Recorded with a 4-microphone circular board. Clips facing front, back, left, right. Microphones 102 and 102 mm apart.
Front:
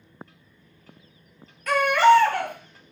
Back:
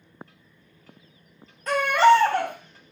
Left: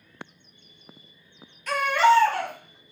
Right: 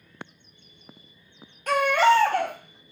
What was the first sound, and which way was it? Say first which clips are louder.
A baby crying: even, even; 125° right.